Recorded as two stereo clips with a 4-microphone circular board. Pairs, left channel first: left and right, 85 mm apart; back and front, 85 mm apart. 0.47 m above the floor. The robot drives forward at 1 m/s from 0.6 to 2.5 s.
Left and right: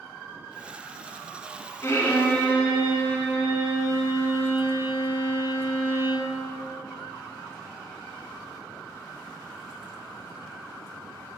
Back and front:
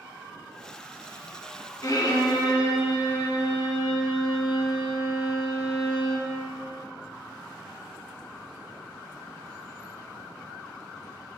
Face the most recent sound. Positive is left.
turn(degrees=160)